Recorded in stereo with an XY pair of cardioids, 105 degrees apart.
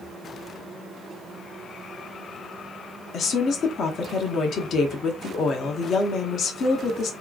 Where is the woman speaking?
60° left, 0.7 m.